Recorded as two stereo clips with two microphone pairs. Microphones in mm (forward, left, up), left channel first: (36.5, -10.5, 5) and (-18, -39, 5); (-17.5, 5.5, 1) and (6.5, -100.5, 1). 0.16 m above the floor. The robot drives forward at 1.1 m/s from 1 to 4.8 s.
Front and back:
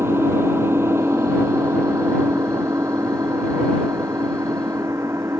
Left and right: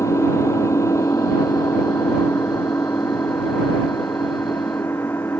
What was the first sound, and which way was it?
An engine running, 165° left.